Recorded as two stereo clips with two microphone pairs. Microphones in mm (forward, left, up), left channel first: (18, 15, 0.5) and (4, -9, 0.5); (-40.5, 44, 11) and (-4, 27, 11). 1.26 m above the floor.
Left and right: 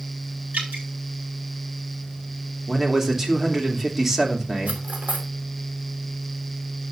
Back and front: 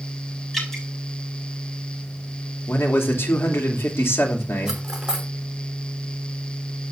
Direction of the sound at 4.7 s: 100° right.